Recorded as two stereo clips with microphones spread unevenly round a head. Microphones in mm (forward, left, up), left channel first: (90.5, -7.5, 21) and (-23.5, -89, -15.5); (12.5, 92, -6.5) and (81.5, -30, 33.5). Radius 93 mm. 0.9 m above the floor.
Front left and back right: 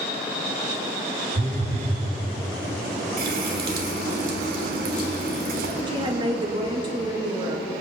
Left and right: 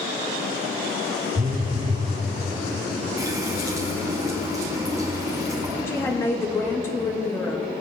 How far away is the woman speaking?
About 1.2 m.